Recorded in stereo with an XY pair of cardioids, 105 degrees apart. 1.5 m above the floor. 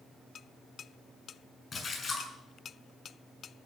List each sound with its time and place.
1.7 s a splash: 35° left, 6 m